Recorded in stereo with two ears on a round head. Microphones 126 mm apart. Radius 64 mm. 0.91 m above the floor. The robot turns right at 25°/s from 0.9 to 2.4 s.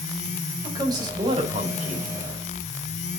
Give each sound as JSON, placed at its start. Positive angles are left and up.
{"t": 0.6, "sound": "a man speaking", "azimuth_deg": -150, "distance_m": 4.0}